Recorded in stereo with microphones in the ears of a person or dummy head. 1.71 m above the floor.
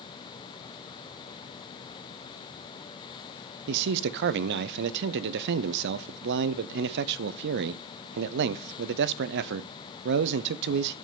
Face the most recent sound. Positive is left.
turn(degrees=-60)  # may be behind; listen again after turning